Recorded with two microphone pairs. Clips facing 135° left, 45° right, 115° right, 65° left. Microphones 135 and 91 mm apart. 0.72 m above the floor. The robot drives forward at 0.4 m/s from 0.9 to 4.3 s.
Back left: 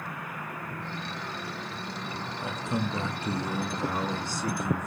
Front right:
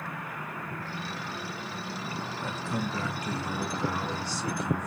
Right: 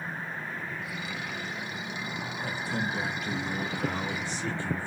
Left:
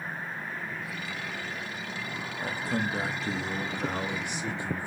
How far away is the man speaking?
About 0.8 m.